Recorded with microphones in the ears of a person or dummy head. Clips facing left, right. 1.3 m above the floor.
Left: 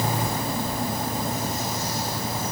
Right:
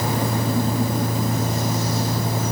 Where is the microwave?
I don't hear a microwave.